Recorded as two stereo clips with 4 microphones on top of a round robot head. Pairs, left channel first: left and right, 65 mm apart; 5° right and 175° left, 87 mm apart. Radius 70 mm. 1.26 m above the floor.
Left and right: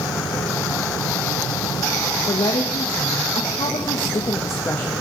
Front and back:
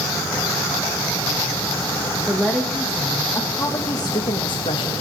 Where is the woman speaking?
95° left, 1.2 m; by 4.9 s 15° left, 0.8 m.